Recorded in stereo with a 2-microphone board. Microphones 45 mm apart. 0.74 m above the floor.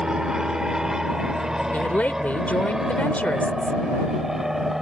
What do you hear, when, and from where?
0.0 s an aircraft: 15° right (ahead or behind); by 4.8 s 5° right (ahead or behind)
1.7 s a woman speaking: 35° left (ahead or behind)